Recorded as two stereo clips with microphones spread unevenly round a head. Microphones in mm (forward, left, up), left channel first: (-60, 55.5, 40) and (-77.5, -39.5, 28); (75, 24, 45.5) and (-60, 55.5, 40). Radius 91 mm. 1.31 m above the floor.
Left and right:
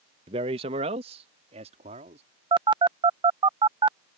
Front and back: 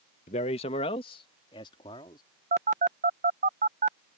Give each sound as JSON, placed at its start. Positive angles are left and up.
{"t": 0.3, "sound": "a man speaking", "azimuth_deg": -60}
{"t": 2.5, "sound": "a phone buzzing", "azimuth_deg": -145}